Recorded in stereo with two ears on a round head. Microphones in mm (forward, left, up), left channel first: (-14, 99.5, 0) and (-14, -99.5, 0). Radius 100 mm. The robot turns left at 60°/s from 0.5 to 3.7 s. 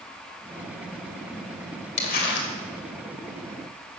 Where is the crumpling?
145° left, 2 m; by 2.5 s 115° left, 2 m.